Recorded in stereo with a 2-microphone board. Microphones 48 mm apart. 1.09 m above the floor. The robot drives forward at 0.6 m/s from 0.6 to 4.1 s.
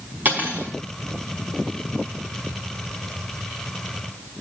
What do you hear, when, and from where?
0.2 s cutlery clinking: 40° right (ahead or behind), 4.5 m